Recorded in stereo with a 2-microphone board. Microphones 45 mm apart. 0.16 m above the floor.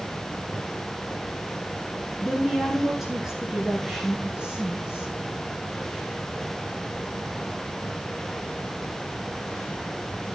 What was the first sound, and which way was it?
A woman speaking, 5° left (ahead or behind).